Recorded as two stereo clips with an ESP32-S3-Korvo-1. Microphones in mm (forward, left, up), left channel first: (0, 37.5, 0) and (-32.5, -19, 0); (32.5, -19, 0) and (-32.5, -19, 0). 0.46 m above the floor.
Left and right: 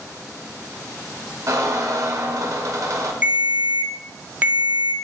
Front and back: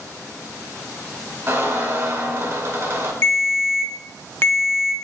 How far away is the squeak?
About 1.0 m.